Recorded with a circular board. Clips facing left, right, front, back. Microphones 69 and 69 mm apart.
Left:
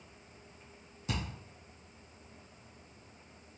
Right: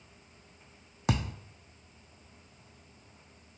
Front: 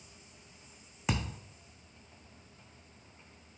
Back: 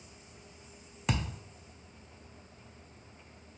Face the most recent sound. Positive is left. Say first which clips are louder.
# right 7 dB, back 1 dB
turn(degrees=-90)